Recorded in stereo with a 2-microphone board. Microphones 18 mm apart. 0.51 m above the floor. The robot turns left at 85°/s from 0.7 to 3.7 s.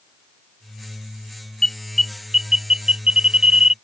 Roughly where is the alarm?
Left.